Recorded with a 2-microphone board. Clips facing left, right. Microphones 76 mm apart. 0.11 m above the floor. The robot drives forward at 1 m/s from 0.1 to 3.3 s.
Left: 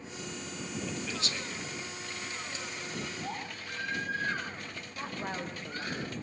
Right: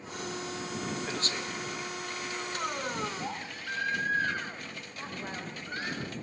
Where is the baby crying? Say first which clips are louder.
Right 2 dB; 60° right (ahead or behind), 8 m.